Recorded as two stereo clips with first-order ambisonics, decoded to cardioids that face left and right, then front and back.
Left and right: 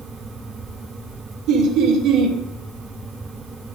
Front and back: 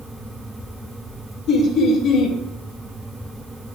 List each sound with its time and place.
1.5 s laughter: 50° right, 1.7 m